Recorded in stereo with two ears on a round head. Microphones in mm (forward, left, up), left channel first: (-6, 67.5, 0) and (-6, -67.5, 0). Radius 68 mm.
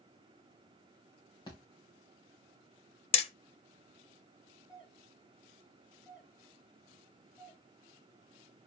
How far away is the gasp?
I don't hear a gasp.